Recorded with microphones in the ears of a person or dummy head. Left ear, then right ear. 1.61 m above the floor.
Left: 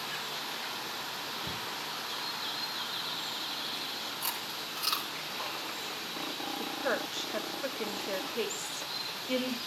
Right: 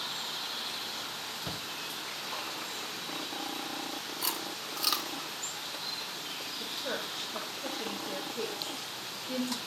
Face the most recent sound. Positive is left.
turn(degrees=55)  # may be behind; listen again after turning